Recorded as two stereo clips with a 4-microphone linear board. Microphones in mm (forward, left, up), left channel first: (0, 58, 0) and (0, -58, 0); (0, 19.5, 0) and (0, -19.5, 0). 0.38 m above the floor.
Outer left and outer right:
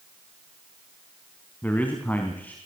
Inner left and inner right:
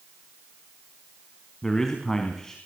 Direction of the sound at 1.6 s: 15° left (ahead or behind).